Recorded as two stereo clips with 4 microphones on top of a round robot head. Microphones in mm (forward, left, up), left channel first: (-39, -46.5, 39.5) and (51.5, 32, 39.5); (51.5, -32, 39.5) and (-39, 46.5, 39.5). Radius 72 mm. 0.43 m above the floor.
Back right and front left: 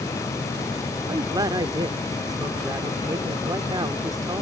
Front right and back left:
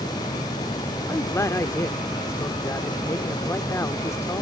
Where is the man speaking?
10° left.